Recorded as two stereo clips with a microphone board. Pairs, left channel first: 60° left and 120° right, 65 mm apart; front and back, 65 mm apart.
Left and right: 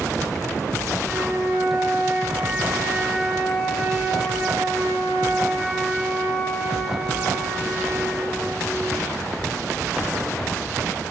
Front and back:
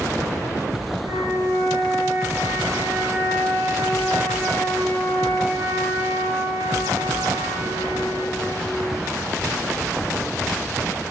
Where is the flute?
170° left, 8 m.